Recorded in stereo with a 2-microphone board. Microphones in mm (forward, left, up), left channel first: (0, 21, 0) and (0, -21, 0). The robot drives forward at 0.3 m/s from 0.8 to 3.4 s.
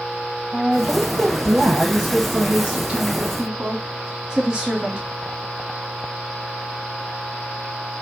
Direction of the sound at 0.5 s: 20° right (ahead or behind).